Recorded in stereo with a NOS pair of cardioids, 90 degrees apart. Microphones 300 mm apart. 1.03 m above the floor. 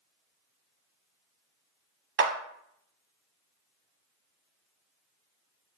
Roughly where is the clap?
Ahead right.